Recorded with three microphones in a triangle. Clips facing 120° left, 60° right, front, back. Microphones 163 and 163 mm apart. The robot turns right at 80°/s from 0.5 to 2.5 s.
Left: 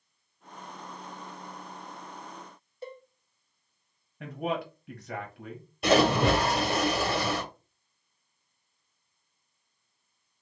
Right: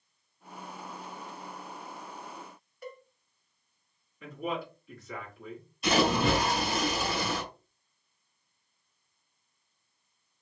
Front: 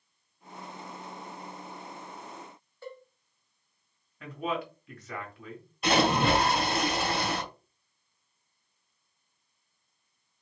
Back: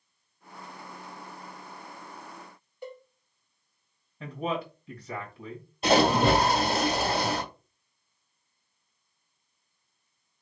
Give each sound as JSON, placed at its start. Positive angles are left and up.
{"t": 2.8, "sound": "a cowbell", "azimuth_deg": 130, "distance_m": 0.6}
{"t": 4.2, "sound": "a man speaking", "azimuth_deg": 120, "distance_m": 1.5}
{"t": 5.8, "sound": "a splash", "azimuth_deg": 125, "distance_m": 1.4}